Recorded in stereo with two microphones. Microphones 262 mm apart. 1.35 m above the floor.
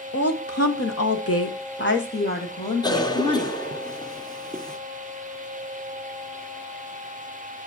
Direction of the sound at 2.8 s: 15° left (ahead or behind).